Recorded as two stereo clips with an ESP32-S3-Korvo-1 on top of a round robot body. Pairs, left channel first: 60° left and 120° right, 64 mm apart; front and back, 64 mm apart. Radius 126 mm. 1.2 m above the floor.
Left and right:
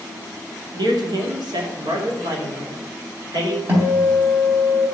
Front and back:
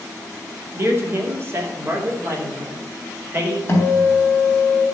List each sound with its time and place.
0.7 s a man speaking: 125° right, 2.5 m; by 3.6 s 130° right, 4.5 m
3.7 s a guitar: 60° right, 4 m